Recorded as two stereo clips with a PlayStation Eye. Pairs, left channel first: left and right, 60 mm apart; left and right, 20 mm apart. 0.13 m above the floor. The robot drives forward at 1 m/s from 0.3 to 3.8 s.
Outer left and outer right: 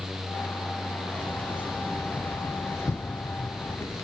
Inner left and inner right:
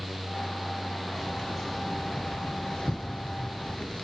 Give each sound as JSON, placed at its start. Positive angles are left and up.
{"t": 1.1, "sound": "keys jangling", "side_deg": 25, "distance_m": 2.5}